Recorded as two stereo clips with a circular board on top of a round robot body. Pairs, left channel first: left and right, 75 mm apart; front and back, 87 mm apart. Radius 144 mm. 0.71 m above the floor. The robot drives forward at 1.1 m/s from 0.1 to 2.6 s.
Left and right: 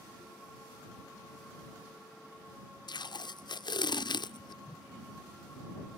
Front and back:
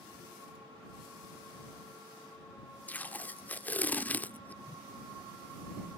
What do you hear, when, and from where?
2.9 s tape being pulled: 70° left
4.7 s a whoosh: 60° left